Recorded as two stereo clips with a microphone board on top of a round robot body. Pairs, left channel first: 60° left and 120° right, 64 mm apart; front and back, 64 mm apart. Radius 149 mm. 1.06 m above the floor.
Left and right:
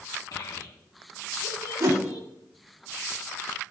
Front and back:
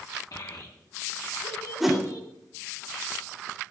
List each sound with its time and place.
0.3 s a child speaking: 35° left, 1.5 m
1.8 s a whoosh: 95° right, 3.5 m